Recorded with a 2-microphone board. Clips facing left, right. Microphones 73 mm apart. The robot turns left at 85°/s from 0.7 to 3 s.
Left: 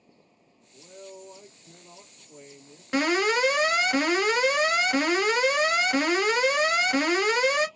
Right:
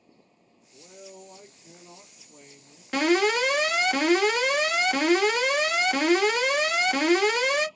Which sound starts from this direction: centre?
An alarm, at 2.9 s.